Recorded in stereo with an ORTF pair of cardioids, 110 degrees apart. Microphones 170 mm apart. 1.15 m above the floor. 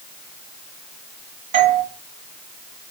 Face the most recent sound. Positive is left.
turn(degrees=-45)